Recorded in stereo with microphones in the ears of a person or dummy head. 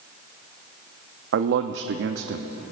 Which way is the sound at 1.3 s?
70° right (ahead or behind).